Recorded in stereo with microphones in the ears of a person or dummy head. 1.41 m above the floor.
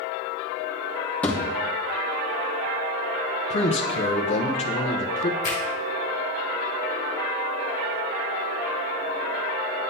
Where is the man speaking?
30° left (ahead or behind), 0.6 m.